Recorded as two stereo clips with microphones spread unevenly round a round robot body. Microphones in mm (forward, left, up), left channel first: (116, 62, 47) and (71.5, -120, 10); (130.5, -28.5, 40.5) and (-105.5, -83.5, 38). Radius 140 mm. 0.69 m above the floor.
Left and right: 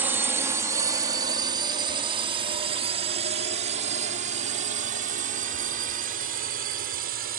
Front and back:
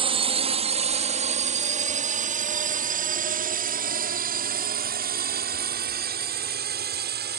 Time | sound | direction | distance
0.0 | a drone | 140° right | ?